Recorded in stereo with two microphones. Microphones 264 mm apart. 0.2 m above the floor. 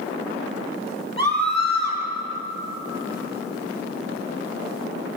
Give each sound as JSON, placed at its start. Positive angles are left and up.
{"t": 1.2, "sound": "a scream", "side_deg": -75, "distance_m": 5.0}